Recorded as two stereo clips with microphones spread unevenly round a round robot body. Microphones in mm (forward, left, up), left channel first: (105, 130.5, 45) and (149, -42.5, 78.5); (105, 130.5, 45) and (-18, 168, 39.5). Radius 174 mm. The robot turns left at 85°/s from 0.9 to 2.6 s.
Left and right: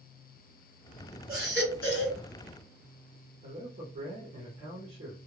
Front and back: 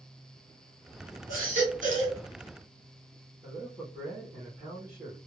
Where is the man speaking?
135° right, 0.7 m.